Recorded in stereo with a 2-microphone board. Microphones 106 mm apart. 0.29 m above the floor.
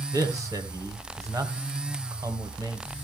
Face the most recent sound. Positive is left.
turn(degrees=-30)  # may be behind; listen again after turning